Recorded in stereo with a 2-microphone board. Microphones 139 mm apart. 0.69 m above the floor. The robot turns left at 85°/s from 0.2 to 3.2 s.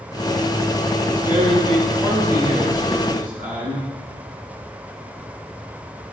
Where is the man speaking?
170° left, 6.5 m; by 3.9 s 10° right, 6.5 m.